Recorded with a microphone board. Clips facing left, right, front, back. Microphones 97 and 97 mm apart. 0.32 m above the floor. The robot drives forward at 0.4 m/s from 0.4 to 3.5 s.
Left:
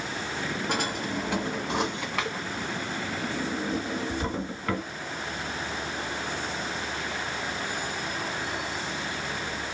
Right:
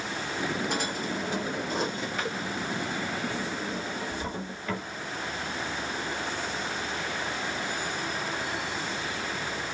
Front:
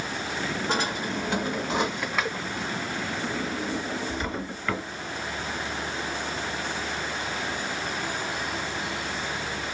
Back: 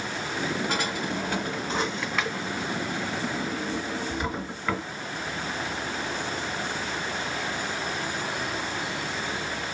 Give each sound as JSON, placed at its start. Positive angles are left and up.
{"t": 0.7, "sound": "a drawer", "azimuth_deg": 65, "distance_m": 1.7}